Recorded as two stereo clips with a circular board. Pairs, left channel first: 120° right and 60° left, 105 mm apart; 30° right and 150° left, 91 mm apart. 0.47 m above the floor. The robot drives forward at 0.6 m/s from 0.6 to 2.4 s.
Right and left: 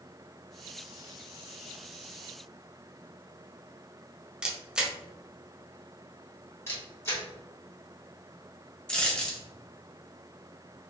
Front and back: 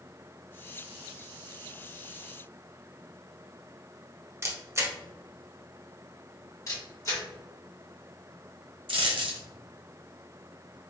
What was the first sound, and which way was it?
A camera shutter, 135° left.